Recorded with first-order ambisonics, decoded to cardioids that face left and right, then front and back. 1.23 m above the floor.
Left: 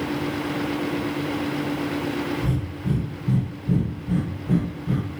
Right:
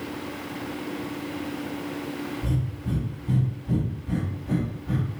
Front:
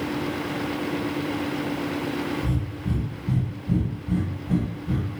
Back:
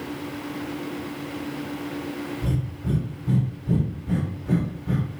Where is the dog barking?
No dog barking in this recording.